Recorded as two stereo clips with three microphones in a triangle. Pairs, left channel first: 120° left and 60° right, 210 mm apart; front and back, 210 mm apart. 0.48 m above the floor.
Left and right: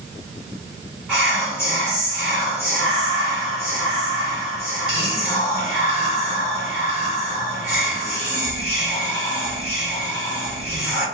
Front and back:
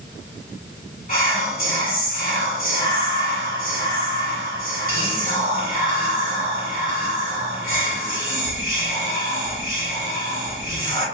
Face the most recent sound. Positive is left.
turn(degrees=25)